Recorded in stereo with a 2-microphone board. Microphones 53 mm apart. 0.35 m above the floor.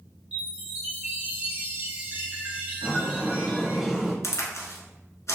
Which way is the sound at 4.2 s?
70° left (ahead or behind).